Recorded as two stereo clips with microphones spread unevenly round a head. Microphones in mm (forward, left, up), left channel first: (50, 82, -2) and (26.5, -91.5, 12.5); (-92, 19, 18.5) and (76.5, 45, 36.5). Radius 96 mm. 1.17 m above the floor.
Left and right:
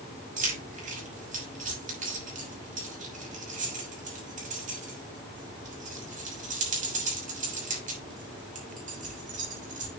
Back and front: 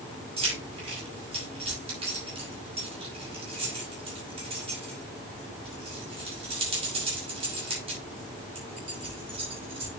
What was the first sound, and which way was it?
Keys jangling, 55° right.